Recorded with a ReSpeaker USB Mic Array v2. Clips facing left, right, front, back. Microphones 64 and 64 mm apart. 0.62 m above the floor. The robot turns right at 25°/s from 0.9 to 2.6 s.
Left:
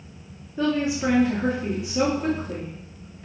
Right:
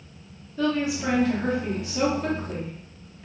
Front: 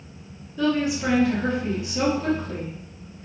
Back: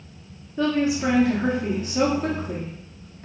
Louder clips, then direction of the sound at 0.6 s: Left 2 dB, back 1 dB; 135° left.